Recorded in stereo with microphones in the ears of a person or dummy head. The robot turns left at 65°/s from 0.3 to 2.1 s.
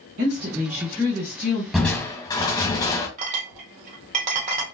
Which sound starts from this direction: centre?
Crushing, at 1.7 s.